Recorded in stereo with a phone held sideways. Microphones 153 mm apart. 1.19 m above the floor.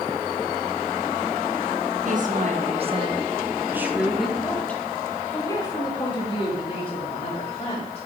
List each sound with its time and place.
2.0 s a woman speaking: 55° right (ahead or behind), 1.9 m; by 8.1 s 40° left (ahead or behind), 4 m